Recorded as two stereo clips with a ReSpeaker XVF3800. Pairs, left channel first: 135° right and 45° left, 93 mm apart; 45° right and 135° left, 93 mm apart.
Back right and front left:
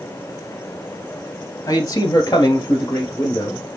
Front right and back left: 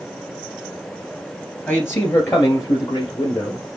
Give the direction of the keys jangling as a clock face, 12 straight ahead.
No keys jangling in this recording.